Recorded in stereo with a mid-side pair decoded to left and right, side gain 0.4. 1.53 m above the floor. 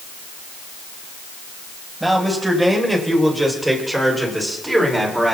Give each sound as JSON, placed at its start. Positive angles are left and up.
{"t": 2.0, "sound": "a man speaking", "azimuth_deg": -10, "distance_m": 8.5}